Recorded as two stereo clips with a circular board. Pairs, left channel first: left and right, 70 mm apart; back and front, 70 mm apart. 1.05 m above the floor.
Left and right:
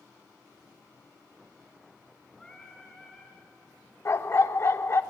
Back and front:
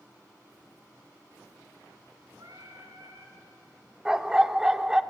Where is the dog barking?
75° left, 0.8 m.